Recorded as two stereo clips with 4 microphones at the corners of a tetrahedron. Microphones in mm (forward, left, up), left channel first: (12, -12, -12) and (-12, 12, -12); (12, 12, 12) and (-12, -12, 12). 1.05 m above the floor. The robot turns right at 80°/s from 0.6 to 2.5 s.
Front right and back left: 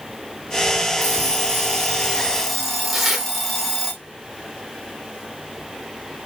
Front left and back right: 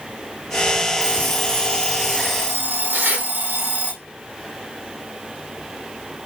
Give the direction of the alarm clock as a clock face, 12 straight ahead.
9 o'clock.